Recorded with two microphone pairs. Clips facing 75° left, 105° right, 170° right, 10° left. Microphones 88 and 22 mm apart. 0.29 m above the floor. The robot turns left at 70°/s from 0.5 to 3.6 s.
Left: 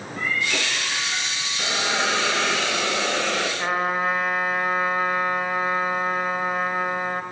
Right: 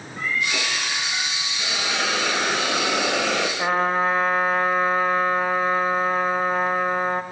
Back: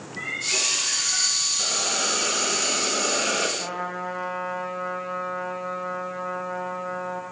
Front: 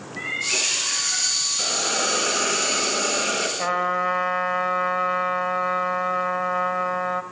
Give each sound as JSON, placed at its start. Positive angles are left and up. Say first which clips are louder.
{"t": 0.2, "sound": "a cat meowing", "louder": "even, front 2 dB", "azimuth_deg": 85, "distance_m": 6.0}
{"t": 1.6, "sound": "a hiss", "louder": "left 2 dB, front 1 dB", "azimuth_deg": 20, "distance_m": 5.0}
{"t": 3.6, "sound": "a trumpet", "louder": "right 4 dB, front 7 dB", "azimuth_deg": -45, "distance_m": 2.5}